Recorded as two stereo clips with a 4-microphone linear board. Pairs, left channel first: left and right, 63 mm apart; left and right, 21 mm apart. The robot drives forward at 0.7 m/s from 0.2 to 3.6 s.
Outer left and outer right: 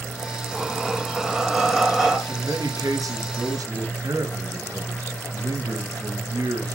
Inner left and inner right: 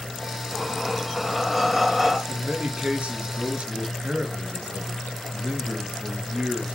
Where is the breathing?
5° right (ahead or behind), 1.3 m.